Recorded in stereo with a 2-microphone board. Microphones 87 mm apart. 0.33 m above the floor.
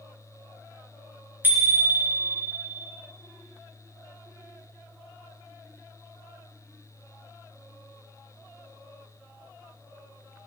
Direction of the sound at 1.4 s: 25° right (ahead or behind).